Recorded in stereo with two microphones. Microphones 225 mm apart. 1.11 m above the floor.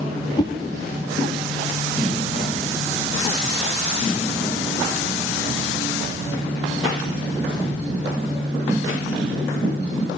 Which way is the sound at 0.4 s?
20° left (ahead or behind).